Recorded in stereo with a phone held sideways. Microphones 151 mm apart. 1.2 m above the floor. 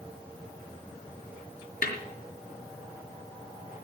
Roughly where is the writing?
I don't hear writing.